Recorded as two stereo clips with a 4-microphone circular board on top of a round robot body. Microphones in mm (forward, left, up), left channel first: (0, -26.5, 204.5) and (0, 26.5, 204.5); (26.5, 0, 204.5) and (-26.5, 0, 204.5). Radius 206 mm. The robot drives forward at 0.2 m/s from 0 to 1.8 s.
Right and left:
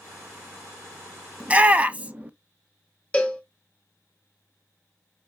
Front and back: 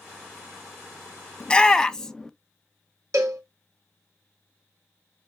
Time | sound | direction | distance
1.4 | a shout | 50° left | 0.7 m
3.1 | a cowbell | 155° right | 0.6 m